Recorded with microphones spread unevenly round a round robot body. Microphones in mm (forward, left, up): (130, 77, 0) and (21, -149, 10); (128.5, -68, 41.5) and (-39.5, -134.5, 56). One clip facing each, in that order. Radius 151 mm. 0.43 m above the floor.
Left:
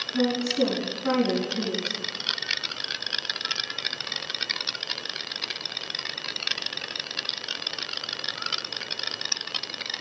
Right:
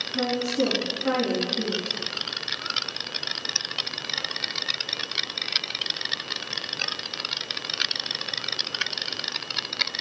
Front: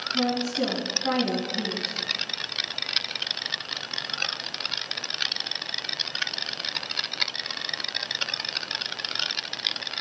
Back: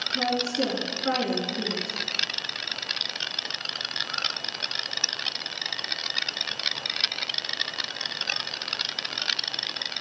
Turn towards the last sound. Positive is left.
turn(degrees=20)